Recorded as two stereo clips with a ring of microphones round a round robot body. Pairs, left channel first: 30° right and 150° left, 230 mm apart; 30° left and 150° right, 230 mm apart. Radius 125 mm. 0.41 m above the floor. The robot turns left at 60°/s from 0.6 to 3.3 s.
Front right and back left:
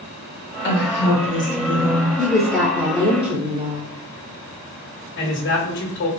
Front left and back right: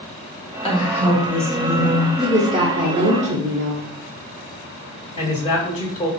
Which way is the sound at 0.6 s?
30° right.